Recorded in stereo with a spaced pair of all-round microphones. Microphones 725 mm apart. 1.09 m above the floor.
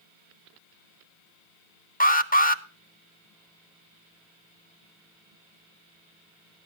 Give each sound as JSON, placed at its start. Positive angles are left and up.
{"t": 2.0, "sound": "an alarm", "side_deg": 15, "distance_m": 0.6}